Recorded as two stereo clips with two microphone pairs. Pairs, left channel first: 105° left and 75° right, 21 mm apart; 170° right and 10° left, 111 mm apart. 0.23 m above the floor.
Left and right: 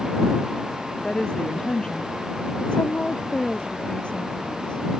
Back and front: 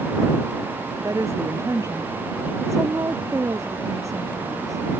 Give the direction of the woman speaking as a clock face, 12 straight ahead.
10 o'clock.